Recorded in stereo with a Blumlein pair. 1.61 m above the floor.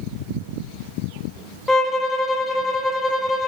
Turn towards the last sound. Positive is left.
turn(degrees=15)